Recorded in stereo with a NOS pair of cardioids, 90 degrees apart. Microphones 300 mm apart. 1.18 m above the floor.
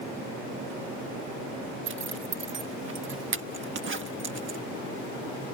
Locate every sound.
1.9 s a zipper: 40° right